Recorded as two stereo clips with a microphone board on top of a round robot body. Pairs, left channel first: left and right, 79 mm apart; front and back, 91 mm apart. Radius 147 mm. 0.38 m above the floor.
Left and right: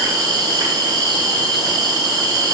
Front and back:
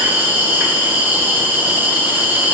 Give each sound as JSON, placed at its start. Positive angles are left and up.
{"t": 0.0, "sound": "an insect", "azimuth_deg": -115, "distance_m": 1.7}